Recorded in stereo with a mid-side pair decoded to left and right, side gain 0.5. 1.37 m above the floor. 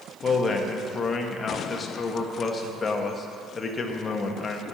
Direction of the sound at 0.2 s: 35° left.